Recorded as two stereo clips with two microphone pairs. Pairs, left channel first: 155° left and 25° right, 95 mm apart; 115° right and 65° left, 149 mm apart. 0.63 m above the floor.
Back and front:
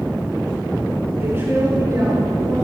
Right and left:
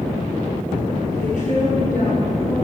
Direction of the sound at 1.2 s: 90° right.